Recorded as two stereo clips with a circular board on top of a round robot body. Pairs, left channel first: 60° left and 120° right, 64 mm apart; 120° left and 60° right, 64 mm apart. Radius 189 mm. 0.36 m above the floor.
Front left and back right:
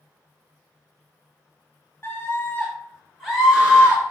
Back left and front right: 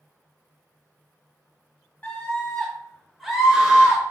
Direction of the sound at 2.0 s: 70° left.